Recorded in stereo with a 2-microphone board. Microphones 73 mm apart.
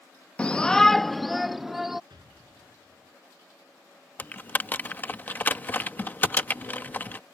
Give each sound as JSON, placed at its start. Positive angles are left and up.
{"t": 0.4, "sound": "a shout", "side_deg": 15}
{"t": 2.1, "sound": "an explosion", "side_deg": -75}
{"t": 4.2, "sound": "typing on a keyboard", "side_deg": 25}